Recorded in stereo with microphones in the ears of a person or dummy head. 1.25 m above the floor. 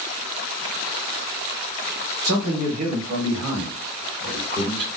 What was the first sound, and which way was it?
A man speaking, 55° right (ahead or behind).